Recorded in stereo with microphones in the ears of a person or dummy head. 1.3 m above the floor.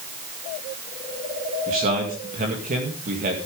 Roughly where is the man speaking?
Right.